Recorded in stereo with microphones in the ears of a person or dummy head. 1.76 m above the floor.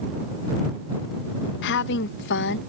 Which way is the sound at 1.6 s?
60° left (ahead or behind).